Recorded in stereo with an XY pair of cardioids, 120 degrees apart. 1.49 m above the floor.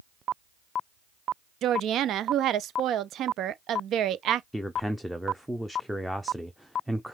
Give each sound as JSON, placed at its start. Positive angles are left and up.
{"t": 1.6, "sound": "a woman speaking", "azimuth_deg": -60, "distance_m": 0.7}
{"t": 4.5, "sound": "a man speaking", "azimuth_deg": 0, "distance_m": 0.7}